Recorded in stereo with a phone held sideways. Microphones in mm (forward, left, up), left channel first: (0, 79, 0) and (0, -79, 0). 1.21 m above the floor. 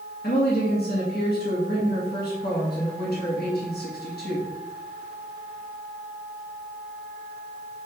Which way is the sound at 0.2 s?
85° left.